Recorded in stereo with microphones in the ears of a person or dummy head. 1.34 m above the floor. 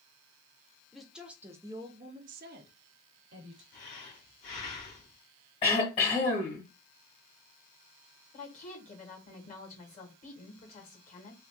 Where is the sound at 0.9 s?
Centre (ahead or behind), 1.1 m; by 3.6 s 65° right (ahead or behind), 1.1 m.